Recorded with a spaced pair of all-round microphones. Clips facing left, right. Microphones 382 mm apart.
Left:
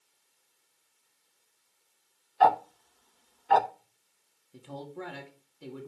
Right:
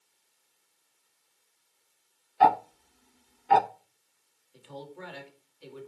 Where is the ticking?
40° right (ahead or behind), 0.7 m.